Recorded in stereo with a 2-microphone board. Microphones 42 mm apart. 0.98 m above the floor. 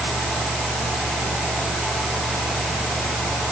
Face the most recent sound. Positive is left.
No sound to turn to.